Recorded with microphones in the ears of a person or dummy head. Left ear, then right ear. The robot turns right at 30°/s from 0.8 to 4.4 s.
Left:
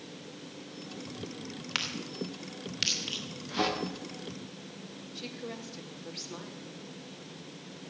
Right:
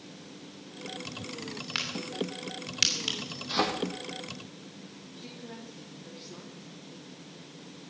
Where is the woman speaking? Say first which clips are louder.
Left 5 dB; 85° left, 3 m.